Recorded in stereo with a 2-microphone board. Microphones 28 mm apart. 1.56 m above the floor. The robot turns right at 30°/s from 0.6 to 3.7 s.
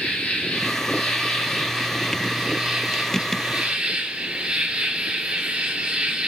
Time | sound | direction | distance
0.0 | an insect | 135° left | 2.5 m